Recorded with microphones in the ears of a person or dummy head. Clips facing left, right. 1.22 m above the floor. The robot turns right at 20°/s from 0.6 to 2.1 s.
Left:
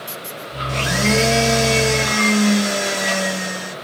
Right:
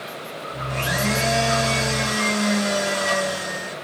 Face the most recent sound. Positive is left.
turn(degrees=30)  # may be behind; listen again after turning